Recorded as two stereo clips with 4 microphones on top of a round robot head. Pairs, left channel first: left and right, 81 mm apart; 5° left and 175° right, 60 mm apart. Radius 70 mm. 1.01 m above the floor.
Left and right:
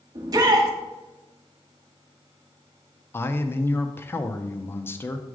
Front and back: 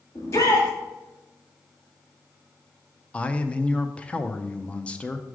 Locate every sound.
0.1 s a shout: 50° right, 1.5 m
3.1 s a man speaking: 55° left, 0.5 m